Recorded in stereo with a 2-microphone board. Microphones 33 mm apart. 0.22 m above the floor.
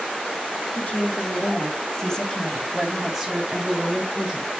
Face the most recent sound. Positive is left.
turn(degrees=-30)  # may be behind; listen again after turning